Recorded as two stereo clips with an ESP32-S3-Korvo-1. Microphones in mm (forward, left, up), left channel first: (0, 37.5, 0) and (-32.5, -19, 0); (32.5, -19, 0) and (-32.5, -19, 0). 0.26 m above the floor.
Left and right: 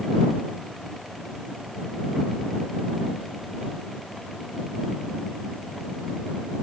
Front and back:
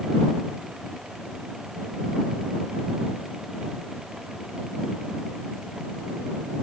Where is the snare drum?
No snare drum in this recording.